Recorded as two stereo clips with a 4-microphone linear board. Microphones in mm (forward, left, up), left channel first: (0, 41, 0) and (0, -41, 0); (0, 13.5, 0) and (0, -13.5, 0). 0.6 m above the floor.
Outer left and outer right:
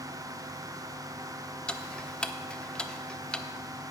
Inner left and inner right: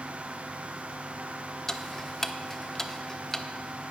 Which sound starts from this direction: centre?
Ticking, at 1.7 s.